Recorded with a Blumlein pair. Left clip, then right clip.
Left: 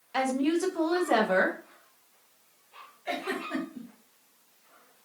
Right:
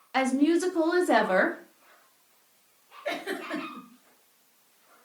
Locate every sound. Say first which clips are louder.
0.1 s a woman speaking: right 3 dB; 10° right, 0.8 m
3.0 s a giggle: even; 30° right, 2 m